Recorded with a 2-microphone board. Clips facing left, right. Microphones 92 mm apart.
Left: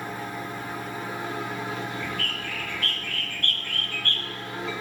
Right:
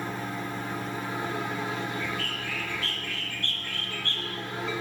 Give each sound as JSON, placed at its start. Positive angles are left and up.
{"t": 2.0, "sound": "a bird", "side_deg": 55, "distance_m": 1.2}